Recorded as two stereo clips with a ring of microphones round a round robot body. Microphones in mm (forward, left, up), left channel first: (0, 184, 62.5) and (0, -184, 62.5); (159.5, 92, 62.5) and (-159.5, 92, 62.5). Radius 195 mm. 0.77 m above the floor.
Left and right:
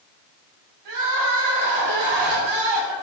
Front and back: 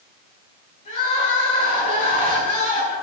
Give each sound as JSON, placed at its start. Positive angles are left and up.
{"t": 0.8, "sound": "crying", "azimuth_deg": -70, "distance_m": 7.5}